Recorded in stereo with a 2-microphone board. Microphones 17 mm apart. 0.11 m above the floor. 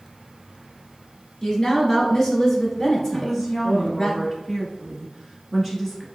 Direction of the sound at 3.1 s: 10° right (ahead or behind).